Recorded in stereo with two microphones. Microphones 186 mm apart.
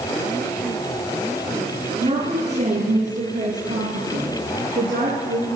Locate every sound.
2.0 s a woman speaking: 35° right (ahead or behind), 3.5 m; by 5.6 s 70° right (ahead or behind), 3.5 m